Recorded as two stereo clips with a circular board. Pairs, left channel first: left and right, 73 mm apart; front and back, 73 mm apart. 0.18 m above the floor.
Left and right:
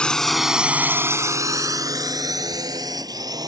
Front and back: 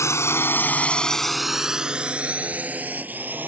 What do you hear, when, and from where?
0.0 s a drone: 20° left; by 3.5 s 115° right